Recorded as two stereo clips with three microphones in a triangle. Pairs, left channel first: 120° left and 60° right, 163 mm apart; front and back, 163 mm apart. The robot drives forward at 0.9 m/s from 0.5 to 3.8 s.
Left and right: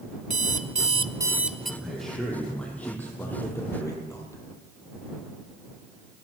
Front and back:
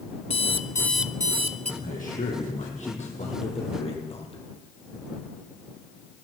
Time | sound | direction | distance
0.3 | an alarm clock | 40° right | 0.7 m
1.8 | a man speaking | 30° left | 4.5 m